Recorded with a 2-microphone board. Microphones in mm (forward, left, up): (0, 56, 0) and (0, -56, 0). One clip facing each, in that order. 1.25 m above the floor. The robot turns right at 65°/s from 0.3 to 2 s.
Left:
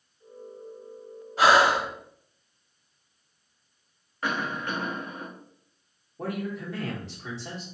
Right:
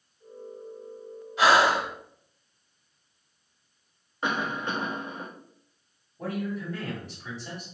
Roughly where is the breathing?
Ahead left.